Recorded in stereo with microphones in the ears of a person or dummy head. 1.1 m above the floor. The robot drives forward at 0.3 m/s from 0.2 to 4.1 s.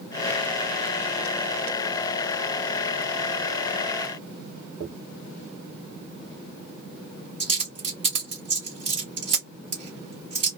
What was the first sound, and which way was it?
A dropped coin, 30° right (ahead or behind).